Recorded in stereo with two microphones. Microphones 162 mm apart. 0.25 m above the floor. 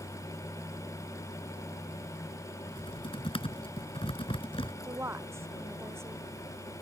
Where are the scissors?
No scissors in this recording.